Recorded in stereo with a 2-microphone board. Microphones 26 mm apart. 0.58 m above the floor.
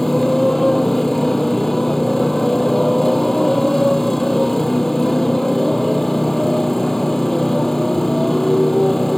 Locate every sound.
0.0 s a motorcycle: 15° left (ahead or behind)